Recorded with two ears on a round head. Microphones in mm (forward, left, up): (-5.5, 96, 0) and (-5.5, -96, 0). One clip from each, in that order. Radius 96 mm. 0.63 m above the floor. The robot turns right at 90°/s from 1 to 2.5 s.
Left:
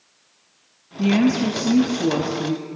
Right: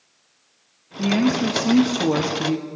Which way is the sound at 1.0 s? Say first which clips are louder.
Left 1 dB; 155° left.